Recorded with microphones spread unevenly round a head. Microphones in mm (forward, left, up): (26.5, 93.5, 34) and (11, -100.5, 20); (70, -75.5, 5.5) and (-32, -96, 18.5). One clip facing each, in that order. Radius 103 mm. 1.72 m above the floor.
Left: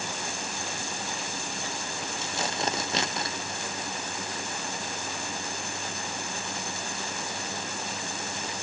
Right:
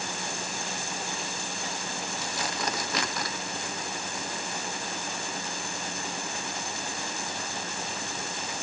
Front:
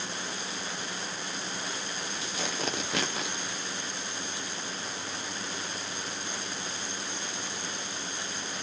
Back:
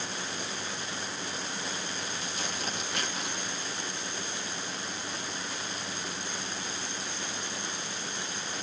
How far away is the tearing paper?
About 1.0 m.